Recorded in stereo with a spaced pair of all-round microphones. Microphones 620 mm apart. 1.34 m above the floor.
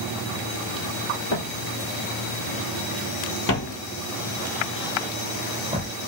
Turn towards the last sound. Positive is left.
turn(degrees=-15)  # may be behind; listen again after turning